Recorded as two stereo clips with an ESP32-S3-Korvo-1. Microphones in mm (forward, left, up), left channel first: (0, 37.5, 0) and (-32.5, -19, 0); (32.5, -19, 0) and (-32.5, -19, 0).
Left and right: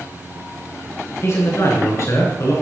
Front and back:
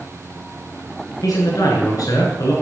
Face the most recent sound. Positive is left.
turn(degrees=25)